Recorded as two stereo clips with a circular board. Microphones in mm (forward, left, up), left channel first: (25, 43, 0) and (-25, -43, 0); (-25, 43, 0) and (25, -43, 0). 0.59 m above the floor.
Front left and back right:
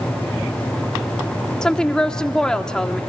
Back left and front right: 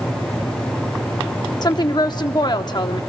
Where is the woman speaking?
140° left, 0.9 m.